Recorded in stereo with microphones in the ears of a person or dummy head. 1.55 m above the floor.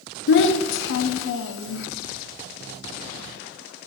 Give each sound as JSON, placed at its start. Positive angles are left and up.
{"t": 0.3, "sound": "a child speaking", "side_deg": 65, "distance_m": 0.6}